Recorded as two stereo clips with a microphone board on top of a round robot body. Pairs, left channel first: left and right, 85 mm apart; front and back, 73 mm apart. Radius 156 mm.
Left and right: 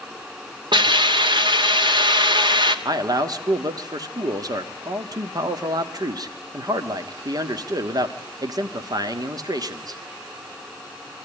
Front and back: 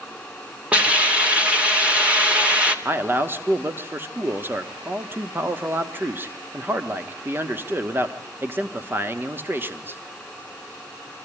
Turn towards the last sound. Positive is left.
turn(degrees=-120)